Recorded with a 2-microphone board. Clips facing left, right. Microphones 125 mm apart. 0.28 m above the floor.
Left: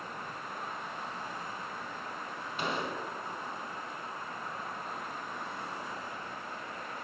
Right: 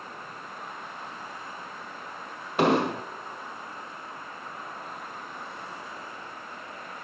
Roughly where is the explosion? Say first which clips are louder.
Right 13 dB; right.